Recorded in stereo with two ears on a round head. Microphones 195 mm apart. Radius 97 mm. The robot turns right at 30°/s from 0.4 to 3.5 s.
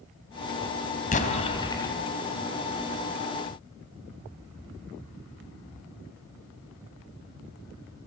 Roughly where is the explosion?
Left.